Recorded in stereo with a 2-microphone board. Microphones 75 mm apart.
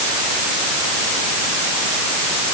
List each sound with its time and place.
Only background noise.